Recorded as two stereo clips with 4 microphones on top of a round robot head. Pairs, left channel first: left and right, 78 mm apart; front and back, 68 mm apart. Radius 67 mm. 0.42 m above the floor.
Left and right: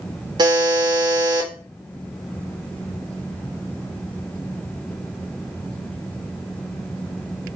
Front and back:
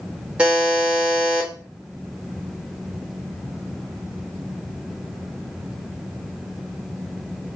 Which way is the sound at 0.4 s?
105° right.